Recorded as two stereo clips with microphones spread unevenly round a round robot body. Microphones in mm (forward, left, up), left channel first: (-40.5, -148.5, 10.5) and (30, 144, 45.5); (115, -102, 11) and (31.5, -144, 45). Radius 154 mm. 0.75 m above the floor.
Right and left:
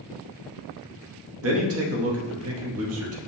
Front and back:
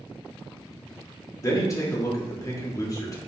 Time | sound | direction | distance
1.4 | a man speaking | 35° left | 0.9 m